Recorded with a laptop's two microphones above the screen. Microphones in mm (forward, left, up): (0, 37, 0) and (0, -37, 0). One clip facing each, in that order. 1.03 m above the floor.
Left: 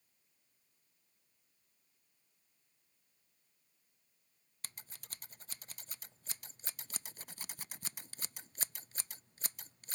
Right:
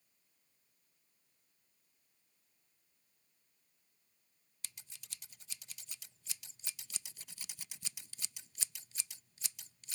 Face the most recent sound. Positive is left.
turn(degrees=45)  # may be behind; listen again after turning